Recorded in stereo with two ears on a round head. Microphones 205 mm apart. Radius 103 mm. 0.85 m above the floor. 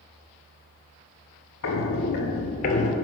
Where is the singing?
I don't hear singing.